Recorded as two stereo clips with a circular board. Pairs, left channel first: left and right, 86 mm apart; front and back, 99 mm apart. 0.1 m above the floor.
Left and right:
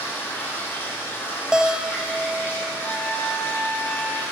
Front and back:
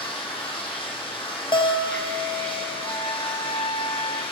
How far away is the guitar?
About 0.6 m.